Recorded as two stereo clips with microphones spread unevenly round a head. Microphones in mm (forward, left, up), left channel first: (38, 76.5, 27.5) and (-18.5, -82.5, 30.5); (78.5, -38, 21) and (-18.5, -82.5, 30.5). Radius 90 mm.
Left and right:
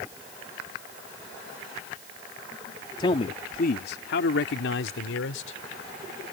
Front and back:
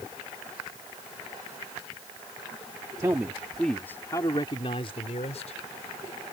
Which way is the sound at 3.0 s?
135° left.